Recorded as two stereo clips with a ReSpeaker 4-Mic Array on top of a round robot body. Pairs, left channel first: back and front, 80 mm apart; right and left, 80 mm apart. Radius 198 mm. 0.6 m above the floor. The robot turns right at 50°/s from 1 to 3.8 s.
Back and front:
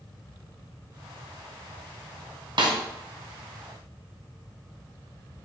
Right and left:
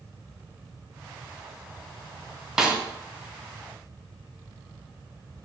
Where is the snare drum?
5° left, 0.7 m; by 2.8 s 15° left, 0.7 m.